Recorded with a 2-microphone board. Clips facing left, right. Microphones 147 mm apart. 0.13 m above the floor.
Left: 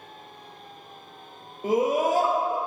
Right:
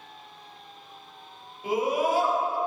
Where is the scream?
45° left (ahead or behind), 3 m.